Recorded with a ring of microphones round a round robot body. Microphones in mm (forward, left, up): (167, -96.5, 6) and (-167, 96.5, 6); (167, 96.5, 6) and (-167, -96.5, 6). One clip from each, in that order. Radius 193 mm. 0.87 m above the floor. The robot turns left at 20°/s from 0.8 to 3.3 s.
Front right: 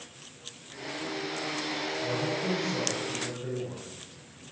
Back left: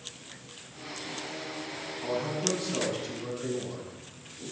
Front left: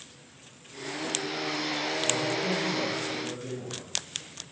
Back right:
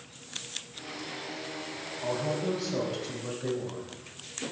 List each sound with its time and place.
2.0 s a man speaking: 125° right, 5.5 m; by 3.9 s 150° right, 5.5 m